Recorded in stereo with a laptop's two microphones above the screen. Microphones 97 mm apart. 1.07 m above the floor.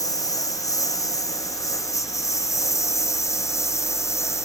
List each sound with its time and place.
0.0 s a lawn mower: 35° left (ahead or behind); by 4.5 s 30° left (ahead or behind)